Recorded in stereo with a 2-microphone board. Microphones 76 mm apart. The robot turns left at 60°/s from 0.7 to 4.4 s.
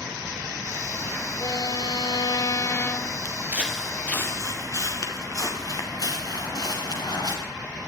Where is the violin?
120° left, 1.7 m; by 3.1 s 10° left, 1.7 m.